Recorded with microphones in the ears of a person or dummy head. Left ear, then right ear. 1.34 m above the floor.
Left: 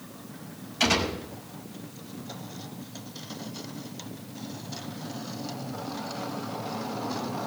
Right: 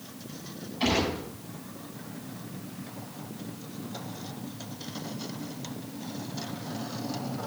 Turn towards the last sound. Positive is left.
turn(degrees=65)  # may be behind; listen again after turning